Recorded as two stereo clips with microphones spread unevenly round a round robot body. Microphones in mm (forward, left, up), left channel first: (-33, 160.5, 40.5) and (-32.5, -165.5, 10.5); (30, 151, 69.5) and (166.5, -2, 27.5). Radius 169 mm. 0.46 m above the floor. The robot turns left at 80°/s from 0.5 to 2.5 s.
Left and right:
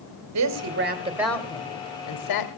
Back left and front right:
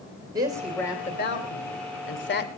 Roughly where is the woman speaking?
Behind right.